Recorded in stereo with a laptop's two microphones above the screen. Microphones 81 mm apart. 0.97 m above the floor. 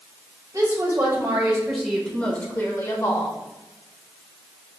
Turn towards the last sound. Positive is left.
turn(degrees=50)  # may be behind; listen again after turning